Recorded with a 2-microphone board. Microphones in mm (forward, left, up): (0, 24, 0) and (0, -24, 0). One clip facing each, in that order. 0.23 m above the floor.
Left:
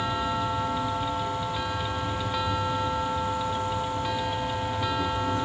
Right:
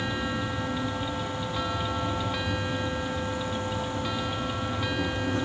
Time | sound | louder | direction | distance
0.0 | an insect | left 3 dB | 50° right (ahead or behind) | 3.5 m